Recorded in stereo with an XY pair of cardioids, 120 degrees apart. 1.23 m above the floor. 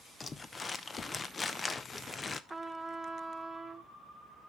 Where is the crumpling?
25° left, 0.7 m.